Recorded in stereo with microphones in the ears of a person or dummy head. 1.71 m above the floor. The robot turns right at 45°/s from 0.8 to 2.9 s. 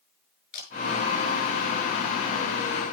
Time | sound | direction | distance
0.5 | a camera shutter | 45° left (ahead or behind) | 7 m